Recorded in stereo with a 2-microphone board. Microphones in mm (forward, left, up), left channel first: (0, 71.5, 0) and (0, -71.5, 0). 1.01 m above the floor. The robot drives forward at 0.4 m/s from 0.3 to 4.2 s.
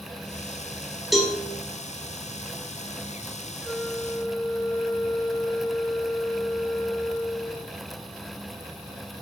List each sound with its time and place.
1.1 s a cowbell: centre (ahead or behind), 1.9 m
3.6 s a flute: 10° left (ahead or behind), 0.8 m